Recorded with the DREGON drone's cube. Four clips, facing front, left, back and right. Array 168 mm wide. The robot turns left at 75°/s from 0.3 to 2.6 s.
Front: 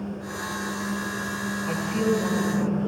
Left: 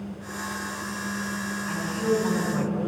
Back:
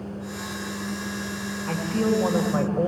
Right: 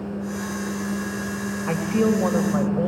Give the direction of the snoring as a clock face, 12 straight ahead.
No snoring in this recording.